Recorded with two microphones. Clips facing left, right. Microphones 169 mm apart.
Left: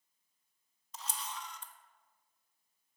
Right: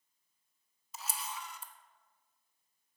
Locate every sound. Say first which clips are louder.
0.9 s a camera shutter: right 1 dB; 5° right (ahead or behind), 0.7 m